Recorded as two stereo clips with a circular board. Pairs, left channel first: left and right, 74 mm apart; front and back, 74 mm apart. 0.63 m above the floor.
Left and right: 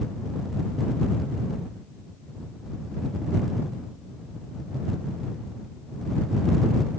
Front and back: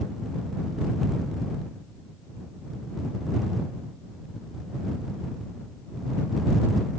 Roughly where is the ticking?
No ticking in this recording.